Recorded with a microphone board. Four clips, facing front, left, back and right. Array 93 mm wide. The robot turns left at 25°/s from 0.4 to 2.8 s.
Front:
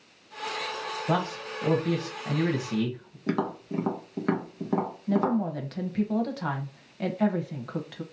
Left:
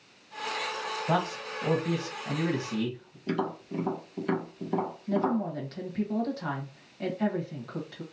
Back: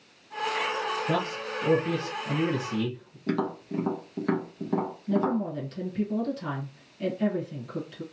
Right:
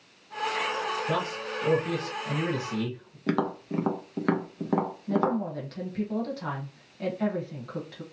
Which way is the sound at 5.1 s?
Straight ahead.